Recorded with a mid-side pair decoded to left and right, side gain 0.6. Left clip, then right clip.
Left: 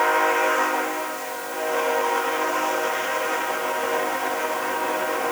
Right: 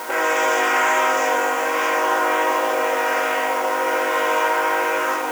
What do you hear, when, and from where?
Only background noise.